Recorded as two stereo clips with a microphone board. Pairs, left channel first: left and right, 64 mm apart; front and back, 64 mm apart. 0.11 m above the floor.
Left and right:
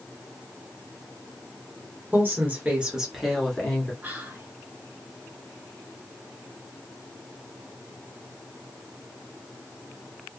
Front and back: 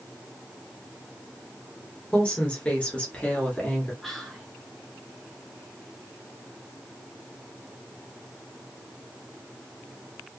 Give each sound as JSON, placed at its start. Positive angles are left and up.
{"t": 2.1, "sound": "a woman speaking", "azimuth_deg": -60, "distance_m": 1.3}
{"t": 4.0, "sound": "whispering", "azimuth_deg": -80, "distance_m": 1.3}